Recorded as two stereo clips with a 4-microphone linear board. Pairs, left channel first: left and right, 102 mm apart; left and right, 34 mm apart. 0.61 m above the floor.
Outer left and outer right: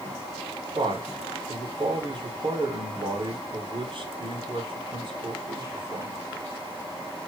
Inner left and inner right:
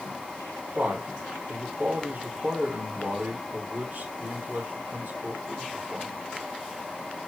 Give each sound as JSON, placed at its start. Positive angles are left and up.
{"t": 0.8, "sound": "a man speaking", "side_deg": -55, "distance_m": 4.0}